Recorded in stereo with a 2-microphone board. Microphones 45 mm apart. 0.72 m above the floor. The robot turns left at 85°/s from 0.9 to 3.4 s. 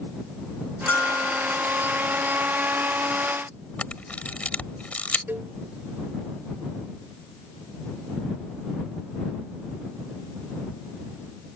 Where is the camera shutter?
35° left (ahead or behind).